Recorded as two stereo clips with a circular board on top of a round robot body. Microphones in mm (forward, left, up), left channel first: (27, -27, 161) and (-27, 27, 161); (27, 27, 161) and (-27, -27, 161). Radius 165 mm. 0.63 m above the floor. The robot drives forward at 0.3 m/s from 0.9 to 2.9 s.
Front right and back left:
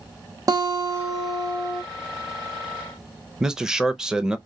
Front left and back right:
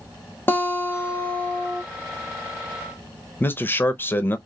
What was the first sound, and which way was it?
A guitar, 105° left.